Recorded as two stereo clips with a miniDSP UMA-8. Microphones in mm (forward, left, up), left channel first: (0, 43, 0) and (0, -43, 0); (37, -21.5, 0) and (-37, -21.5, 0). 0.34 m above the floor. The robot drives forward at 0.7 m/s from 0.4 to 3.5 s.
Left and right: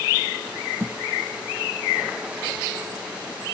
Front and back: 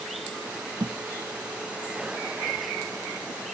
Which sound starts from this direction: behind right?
A thud, at 0.8 s.